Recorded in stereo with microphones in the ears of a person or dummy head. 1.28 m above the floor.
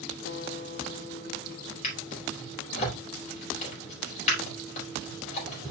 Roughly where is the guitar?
Left.